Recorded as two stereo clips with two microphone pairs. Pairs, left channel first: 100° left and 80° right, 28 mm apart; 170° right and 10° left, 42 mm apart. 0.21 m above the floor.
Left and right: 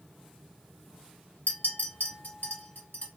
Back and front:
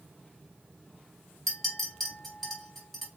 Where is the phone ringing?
No phone ringing in this recording.